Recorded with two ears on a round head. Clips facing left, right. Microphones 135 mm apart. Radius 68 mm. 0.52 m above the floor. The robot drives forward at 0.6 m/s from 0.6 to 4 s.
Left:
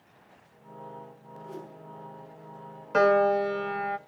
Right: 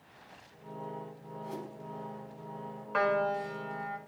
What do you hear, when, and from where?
1.4 s a whoosh: 70° right (ahead or behind), 5 m; by 1.7 s 75° right (ahead or behind), 5 m
2.9 s a piano: 45° left (ahead or behind), 0.8 m; by 4.0 s 70° left (ahead or behind), 0.6 m